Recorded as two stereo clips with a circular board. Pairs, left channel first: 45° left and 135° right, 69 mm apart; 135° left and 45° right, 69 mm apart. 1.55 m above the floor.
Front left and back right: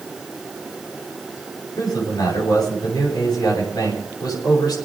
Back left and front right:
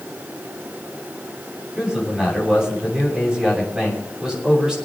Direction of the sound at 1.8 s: 35° left.